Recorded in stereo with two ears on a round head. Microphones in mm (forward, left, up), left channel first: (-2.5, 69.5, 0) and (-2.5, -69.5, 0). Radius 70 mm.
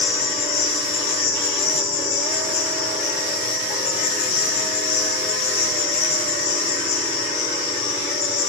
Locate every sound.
0.0 s an insect: 65° left (ahead or behind), 4 m